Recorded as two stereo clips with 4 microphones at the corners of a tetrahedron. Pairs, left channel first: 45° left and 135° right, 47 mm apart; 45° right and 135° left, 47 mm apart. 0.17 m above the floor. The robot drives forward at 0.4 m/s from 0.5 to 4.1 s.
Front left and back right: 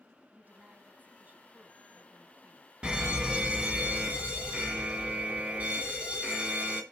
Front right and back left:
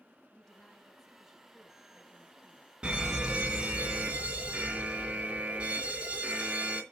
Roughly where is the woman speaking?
Behind right.